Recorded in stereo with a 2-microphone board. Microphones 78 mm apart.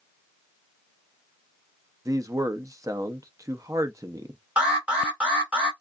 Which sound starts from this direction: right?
A man speaking, at 2.0 s.